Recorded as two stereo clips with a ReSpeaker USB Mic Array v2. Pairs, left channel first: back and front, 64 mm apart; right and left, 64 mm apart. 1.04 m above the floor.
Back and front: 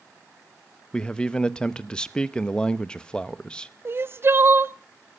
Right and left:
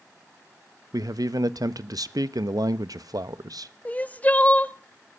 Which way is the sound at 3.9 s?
35° right.